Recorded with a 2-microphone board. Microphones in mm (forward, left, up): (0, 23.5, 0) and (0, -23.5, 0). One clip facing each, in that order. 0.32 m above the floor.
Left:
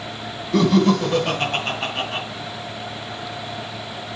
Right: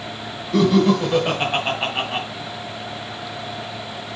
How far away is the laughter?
About 1.5 m.